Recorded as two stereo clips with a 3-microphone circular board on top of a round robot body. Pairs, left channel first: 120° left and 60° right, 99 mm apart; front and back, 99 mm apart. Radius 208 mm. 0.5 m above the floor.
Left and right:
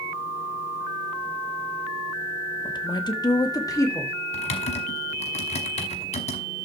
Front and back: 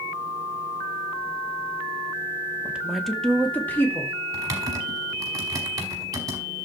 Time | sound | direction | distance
2.6 | a woman speaking | 110° left | 1.6 m
4.3 | typing on a keyboard | 120° left | 0.9 m